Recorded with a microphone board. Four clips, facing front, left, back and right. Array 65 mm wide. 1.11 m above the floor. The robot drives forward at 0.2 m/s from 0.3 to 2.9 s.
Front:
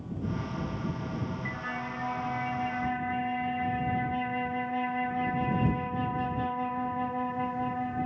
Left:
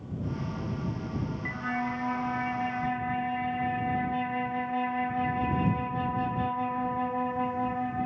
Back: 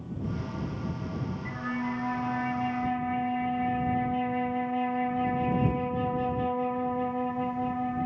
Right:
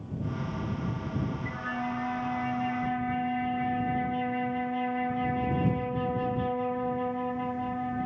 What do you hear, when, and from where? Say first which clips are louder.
1.4 s a flute: left 1 dB, back 3 dB; 75° left, 1.0 m; by 8.1 s 95° left, 1.0 m